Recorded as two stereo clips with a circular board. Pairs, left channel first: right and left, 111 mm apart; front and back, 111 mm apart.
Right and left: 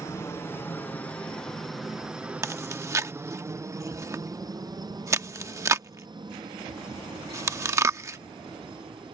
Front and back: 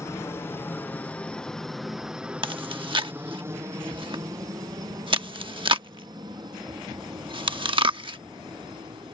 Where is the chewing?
150° left.